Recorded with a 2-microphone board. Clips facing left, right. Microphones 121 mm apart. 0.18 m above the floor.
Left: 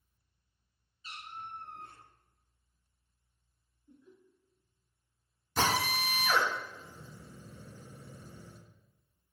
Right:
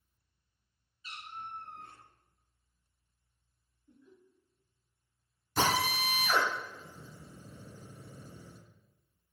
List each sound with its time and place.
1.0 s a cat meowing: 35° left (ahead or behind), 1.5 m
3.9 s laughter: 20° left (ahead or behind), 1.8 m
5.6 s a drill: 5° right (ahead or behind), 1.4 m